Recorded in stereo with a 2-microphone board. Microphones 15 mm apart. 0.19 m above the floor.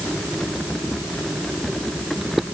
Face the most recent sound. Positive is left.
No sound to turn to.